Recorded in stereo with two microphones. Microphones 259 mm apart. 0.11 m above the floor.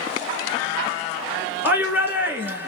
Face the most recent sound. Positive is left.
turn(degrees=-10)  # may be behind; listen again after turning